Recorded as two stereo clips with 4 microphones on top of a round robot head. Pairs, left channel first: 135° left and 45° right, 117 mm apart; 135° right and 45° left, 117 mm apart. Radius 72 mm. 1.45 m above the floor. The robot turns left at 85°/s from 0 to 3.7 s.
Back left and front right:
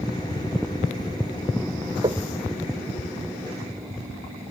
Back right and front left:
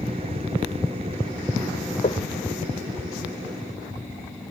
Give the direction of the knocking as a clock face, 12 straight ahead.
3 o'clock.